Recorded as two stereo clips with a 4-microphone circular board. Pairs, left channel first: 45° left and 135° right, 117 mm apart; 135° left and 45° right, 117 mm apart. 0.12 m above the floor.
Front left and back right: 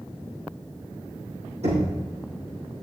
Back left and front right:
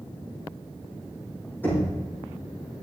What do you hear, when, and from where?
1.6 s knocking: 150° right, 4.5 m